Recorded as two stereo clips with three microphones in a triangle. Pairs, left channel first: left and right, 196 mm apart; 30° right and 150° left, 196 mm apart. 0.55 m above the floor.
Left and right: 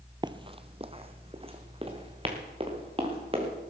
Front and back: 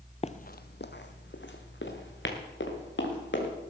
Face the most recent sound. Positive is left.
turn(degrees=-30)